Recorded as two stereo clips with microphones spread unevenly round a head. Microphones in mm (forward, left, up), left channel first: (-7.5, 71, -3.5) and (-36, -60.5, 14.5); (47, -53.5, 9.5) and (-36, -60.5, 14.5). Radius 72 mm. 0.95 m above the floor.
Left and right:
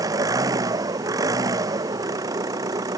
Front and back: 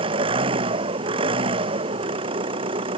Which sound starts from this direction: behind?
An engine running, at 0.0 s.